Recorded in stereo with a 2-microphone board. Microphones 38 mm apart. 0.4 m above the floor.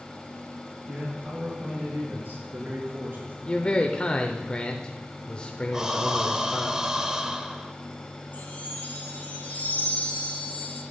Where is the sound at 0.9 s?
55° right (ahead or behind), 6 m; by 3.4 s 70° right (ahead or behind), 4.5 m.